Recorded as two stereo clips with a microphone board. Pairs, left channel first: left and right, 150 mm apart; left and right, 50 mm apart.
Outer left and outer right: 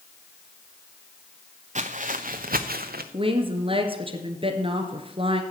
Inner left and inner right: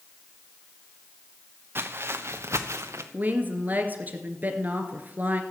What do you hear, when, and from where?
1.8 s footsteps: 55° right (ahead or behind), 1.2 m; by 3.0 s 85° right, 1.2 m
3.1 s a woman speaking: 35° right (ahead or behind), 1.8 m